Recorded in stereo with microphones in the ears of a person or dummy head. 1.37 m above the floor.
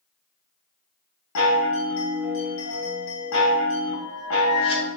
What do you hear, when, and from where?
1.4 s a chime: 75° left (ahead or behind), 1.0 m